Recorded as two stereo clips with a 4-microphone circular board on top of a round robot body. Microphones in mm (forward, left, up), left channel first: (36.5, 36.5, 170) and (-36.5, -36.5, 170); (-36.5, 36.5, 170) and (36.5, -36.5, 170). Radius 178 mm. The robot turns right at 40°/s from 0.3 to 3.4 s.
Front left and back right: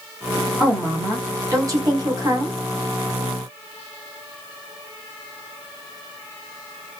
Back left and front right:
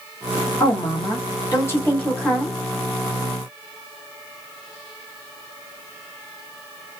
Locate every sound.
0.6 s a woman speaking: 145° left, 1.8 m; by 2.5 s 140° right, 1.8 m